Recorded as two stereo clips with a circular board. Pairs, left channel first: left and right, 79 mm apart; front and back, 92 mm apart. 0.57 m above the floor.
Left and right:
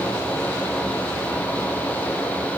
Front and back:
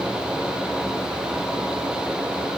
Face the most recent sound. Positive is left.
No sound to turn to.